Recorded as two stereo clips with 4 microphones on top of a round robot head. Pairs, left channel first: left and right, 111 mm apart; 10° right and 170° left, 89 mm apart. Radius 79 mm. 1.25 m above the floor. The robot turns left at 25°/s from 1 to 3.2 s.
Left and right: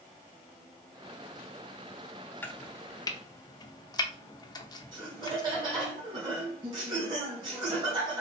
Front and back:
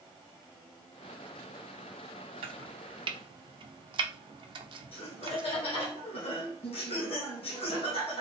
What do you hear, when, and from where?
2.4 s chopping: 165° left, 0.7 m; by 5.9 s 145° left, 0.7 m
4.9 s laughter: 35° right, 1.8 m